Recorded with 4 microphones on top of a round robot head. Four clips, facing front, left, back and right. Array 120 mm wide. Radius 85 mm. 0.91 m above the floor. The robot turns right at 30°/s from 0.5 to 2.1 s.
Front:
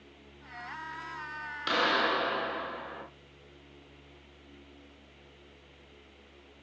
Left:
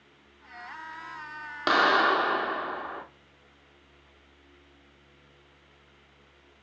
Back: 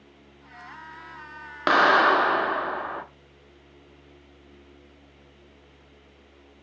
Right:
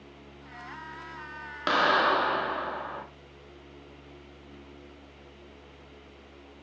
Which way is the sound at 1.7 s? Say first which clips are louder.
Left 1 dB, back 10 dB; 170° left.